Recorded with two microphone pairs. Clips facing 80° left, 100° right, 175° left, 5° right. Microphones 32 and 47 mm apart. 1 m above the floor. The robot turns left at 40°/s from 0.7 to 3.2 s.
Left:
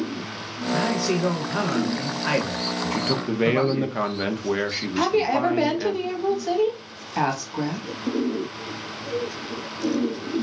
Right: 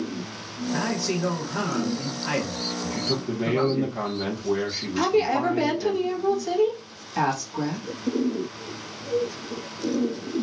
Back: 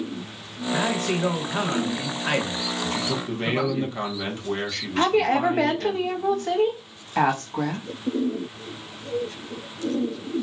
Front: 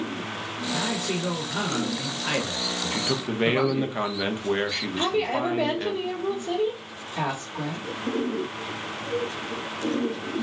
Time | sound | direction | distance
0.7 | a man speaking | 175° left | 1.0 m
2.9 | a man speaking | 65° left | 0.6 m
5.0 | a woman speaking | 160° left | 0.8 m